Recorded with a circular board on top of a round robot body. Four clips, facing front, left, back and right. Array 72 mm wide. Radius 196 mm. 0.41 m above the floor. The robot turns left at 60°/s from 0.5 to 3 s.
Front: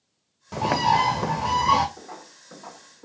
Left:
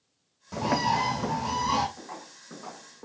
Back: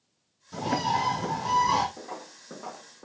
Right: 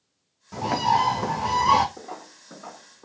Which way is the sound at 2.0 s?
105° right.